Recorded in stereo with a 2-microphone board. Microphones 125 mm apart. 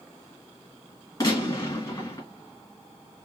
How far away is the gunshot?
About 2 m.